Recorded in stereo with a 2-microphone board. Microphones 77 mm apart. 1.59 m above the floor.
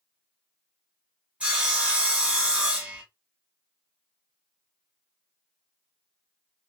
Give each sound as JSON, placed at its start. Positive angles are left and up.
{"t": 1.4, "sound": "sawing", "side_deg": -15, "distance_m": 1.3}